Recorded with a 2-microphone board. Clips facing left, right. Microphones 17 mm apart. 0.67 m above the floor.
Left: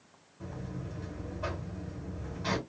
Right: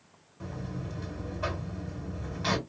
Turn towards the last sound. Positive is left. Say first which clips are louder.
# right 3 dB
turn(degrees=-60)  # may be behind; listen again after turning